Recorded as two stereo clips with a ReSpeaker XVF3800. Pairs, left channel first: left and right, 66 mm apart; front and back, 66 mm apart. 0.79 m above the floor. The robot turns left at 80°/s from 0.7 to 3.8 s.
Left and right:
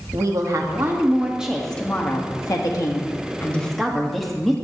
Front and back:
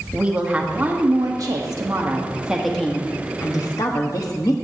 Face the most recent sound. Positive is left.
turn(degrees=0)